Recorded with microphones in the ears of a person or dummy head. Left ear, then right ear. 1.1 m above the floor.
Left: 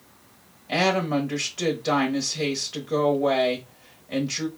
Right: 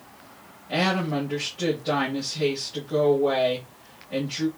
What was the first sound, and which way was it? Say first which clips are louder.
A woman speaking: left 2 dB; 70° left (ahead or behind).